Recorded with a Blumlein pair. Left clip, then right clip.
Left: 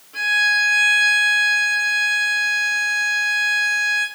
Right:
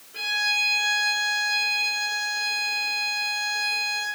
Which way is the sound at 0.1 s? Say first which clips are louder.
Left 7 dB; 50° left.